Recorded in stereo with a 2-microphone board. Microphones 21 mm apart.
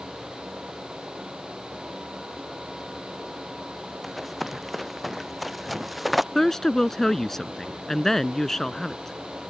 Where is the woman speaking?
20° left (ahead or behind).